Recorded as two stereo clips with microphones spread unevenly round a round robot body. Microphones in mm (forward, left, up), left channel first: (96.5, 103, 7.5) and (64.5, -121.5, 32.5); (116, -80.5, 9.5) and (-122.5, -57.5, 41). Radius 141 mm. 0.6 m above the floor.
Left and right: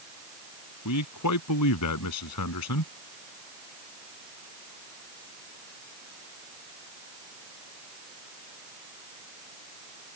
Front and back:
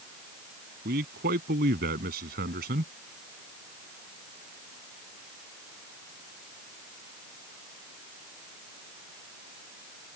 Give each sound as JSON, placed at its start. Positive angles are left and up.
{"t": 0.8, "sound": "a man speaking", "azimuth_deg": 115}